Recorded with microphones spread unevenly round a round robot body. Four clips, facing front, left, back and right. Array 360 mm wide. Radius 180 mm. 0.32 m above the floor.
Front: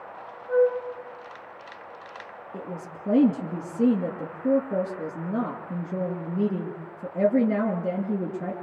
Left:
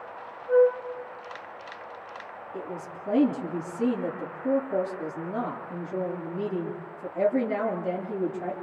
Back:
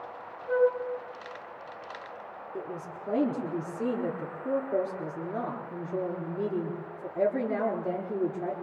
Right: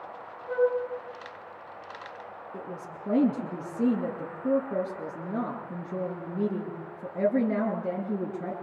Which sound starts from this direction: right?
A flute, at 0.5 s.